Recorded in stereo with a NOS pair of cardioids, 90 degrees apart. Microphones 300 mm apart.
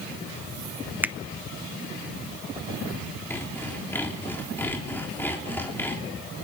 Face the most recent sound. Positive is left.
turn(degrees=5)